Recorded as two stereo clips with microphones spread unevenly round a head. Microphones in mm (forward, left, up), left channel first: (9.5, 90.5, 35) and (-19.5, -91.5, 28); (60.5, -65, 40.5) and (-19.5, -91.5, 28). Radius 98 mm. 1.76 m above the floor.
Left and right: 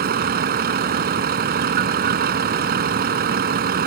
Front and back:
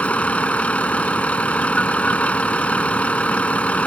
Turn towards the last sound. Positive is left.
turn(degrees=-55)